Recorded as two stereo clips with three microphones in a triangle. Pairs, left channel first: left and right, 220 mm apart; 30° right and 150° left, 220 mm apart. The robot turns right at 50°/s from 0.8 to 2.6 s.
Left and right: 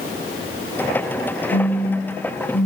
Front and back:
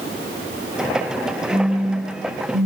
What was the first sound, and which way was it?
A phone buzzing, 75° left.